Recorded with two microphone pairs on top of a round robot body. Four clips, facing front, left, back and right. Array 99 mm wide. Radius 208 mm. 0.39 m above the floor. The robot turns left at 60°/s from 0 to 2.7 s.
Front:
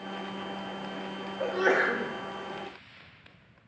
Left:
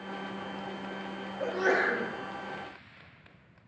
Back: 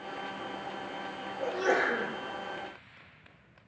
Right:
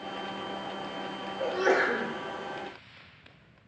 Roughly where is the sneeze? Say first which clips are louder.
Right 2 dB, front 3 dB; ahead.